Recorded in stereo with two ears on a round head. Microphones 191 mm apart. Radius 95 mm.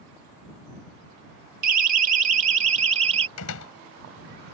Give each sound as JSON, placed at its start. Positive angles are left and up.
{"t": 1.6, "sound": "a siren", "side_deg": -40}
{"t": 3.4, "sound": "a door slam", "side_deg": 85}